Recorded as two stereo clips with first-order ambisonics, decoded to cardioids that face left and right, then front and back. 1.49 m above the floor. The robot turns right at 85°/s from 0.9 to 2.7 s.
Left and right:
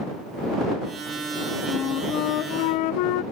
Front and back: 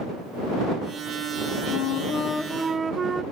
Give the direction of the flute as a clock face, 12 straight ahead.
11 o'clock.